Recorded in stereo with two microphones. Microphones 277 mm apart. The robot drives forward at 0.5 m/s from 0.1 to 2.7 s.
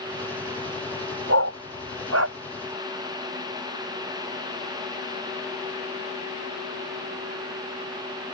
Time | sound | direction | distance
1.3 | a dog barking | 60° right (ahead or behind) | ?